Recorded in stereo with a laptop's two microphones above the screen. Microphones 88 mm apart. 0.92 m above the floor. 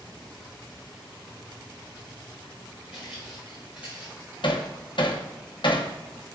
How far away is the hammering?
About 0.8 m.